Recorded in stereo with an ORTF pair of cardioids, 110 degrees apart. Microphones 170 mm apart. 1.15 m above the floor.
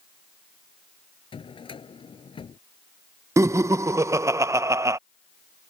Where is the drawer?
30° left.